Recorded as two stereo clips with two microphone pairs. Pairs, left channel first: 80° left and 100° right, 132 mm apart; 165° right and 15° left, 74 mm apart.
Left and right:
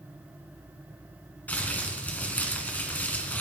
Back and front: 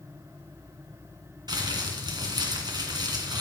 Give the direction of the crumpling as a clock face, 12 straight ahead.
12 o'clock.